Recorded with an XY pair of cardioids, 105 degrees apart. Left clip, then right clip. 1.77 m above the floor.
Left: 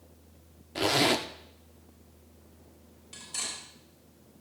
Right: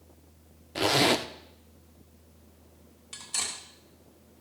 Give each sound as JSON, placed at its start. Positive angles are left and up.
{"t": 0.8, "sound": "a zipper", "azimuth_deg": -15, "distance_m": 0.6}
{"t": 3.1, "sound": "cutlery clinking", "azimuth_deg": -55, "distance_m": 3.0}